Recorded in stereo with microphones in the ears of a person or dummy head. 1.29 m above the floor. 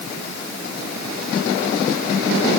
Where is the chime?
No chime in this recording.